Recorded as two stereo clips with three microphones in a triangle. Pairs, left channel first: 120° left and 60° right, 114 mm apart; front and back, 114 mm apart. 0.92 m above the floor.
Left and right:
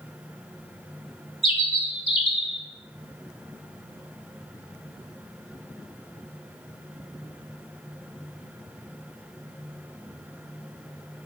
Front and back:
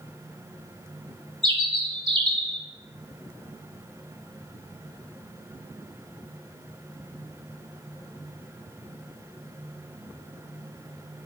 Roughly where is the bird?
Behind left.